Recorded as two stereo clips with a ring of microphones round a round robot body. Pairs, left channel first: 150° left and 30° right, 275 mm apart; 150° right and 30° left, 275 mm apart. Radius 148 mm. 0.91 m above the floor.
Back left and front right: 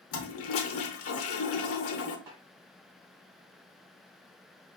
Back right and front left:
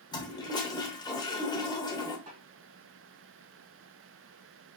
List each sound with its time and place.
0.1 s a toilet flushing: 140° left, 0.7 m
2.3 s a snare drum: 10° right, 2.5 m